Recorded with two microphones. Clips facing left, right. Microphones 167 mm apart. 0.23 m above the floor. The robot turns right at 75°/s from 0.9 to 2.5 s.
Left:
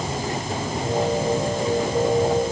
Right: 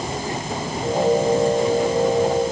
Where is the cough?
I don't hear a cough.